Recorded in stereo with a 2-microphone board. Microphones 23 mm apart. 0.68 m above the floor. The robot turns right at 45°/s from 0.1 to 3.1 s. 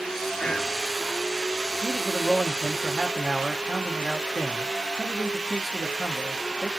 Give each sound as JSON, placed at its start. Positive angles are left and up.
{"t": 0.4, "sound": "whispering", "side_deg": 40, "distance_m": 0.9}
{"t": 1.8, "sound": "a man speaking", "azimuth_deg": 130, "distance_m": 0.7}